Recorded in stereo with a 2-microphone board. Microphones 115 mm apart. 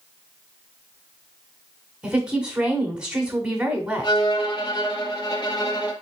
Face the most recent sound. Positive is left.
turn(degrees=40)  # may be behind; listen again after turning